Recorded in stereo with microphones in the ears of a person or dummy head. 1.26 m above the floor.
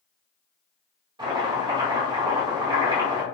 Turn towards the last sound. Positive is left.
turn(degrees=-25)  # may be behind; listen again after turning